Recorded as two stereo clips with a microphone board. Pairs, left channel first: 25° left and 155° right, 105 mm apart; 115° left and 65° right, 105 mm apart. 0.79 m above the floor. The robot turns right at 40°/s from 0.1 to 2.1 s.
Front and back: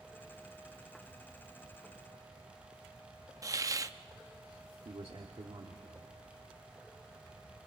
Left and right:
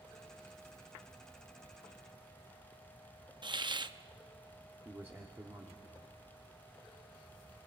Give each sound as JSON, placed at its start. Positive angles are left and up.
{"t": 3.4, "sound": "a hiss", "azimuth_deg": -100, "distance_m": 0.5}
{"t": 4.8, "sound": "a man speaking", "azimuth_deg": -130, "distance_m": 1.5}